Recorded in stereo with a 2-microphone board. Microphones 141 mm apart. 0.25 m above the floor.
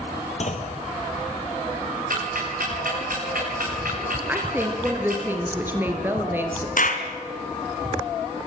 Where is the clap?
65° left (ahead or behind), 2.5 m.